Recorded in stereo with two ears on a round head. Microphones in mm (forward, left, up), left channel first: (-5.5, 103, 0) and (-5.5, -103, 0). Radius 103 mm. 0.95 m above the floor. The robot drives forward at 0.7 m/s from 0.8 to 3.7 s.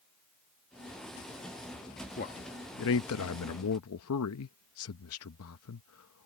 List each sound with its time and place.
2.2 s a man speaking: 35° left (ahead or behind); by 6.3 s 70° left (ahead or behind)